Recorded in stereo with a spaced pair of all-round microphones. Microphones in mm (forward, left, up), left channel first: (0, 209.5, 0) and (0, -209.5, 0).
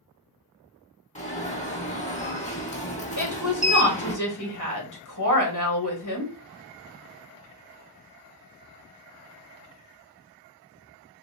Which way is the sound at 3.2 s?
45° left (ahead or behind).